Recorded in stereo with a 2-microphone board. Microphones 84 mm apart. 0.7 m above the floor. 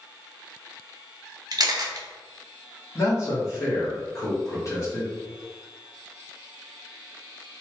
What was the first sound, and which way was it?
A camera shutter, 50° right (ahead or behind).